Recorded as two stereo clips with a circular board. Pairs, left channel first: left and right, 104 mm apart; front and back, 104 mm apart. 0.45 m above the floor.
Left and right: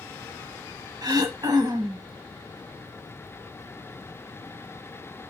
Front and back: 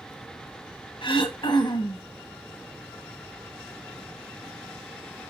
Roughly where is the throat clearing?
Ahead right.